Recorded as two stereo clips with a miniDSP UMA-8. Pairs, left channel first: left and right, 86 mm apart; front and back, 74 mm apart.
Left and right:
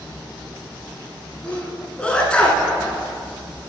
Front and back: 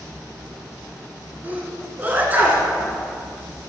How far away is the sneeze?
About 1.2 m.